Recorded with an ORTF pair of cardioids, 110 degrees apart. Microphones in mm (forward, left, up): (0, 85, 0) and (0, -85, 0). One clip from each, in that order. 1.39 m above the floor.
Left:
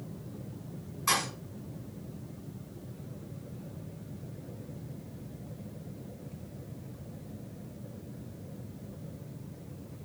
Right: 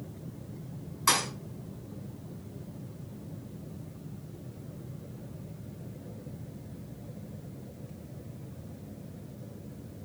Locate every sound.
1.1 s a thud: 35° right, 6 m